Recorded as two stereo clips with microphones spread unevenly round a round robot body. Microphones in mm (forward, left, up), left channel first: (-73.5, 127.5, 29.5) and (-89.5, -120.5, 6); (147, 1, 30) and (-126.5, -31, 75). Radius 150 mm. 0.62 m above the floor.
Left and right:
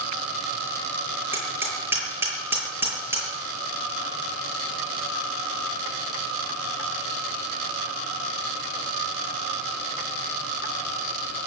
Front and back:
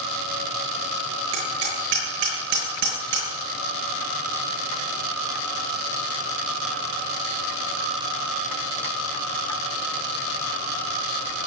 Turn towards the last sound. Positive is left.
turn(degrees=-175)